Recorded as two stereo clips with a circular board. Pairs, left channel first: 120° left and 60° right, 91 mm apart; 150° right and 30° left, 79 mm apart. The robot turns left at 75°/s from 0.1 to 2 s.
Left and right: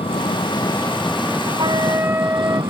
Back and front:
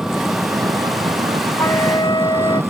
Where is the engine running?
110° left; by 2.7 s 35° right.